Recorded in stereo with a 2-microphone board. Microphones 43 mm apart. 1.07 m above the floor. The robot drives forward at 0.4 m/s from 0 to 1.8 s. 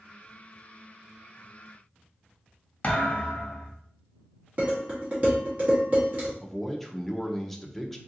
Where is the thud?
35° left (ahead or behind), 0.8 m.